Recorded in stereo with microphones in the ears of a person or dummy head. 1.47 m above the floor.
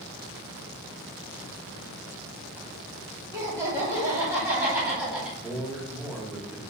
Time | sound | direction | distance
3.3 | laughter | 20° right (ahead or behind) | 2.5 m
5.4 | a man speaking | 10° right (ahead or behind) | 1.8 m